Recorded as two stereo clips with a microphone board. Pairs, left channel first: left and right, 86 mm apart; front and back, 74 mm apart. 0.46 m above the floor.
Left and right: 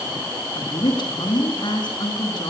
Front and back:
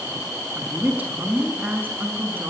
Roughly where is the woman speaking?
Left.